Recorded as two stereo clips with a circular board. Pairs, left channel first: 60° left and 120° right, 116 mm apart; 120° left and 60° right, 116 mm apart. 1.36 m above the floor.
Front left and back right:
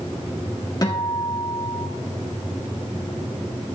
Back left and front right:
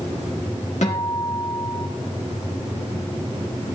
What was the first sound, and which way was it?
A guitar, 115° left.